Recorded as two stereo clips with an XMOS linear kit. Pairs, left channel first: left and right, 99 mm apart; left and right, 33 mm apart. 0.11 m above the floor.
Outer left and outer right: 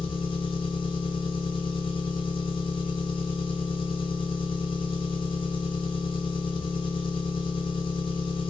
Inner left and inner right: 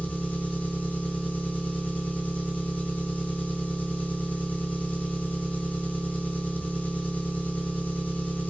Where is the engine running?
55° left (ahead or behind), 1.2 m.